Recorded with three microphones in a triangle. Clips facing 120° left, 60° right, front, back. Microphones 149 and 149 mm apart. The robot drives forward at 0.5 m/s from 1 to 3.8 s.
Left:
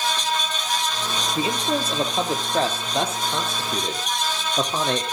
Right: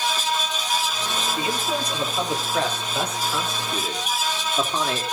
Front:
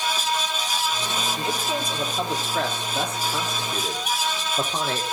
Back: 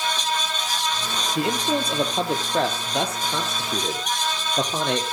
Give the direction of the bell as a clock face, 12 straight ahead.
I don't hear a bell.